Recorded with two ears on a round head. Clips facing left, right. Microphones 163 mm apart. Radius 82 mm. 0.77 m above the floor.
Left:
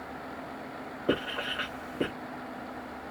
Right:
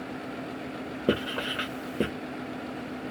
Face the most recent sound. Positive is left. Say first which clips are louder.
# right 2 dB
turn(degrees=-50)  # may be behind; listen again after turning